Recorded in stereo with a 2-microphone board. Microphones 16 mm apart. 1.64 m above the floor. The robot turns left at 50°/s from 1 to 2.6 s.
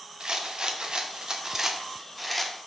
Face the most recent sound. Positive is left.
turn(degrees=165)